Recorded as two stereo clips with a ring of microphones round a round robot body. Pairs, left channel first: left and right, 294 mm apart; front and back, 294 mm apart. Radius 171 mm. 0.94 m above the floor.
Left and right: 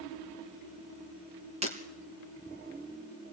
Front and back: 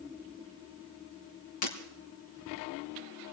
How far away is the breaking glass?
About 3.5 m.